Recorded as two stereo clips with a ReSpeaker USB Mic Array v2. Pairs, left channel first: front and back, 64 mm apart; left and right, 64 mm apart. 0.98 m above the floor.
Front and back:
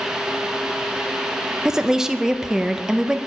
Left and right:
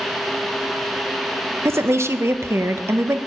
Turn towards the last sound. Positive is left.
turn(degrees=-100)